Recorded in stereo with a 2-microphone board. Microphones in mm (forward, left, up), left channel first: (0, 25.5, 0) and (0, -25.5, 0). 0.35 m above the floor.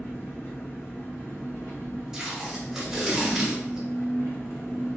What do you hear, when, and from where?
0.0 s an engine running: 65° left (ahead or behind), 1.4 m
2.1 s tape being pulled: 5° right (ahead or behind), 1.8 m